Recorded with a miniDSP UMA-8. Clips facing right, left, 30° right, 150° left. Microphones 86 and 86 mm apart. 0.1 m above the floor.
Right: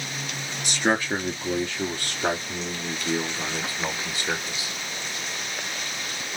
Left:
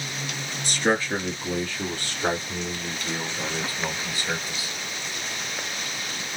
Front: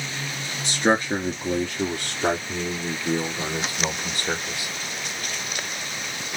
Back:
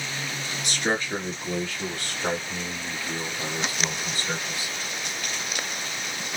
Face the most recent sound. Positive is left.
turn(degrees=-15)